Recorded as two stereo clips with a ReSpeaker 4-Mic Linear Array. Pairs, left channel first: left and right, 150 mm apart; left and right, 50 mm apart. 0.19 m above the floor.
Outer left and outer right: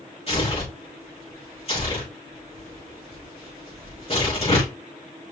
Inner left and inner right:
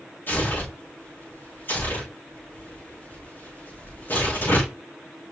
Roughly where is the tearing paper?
Left.